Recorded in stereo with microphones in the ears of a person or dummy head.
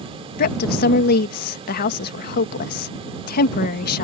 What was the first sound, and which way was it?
A woman speaking, 55° left (ahead or behind).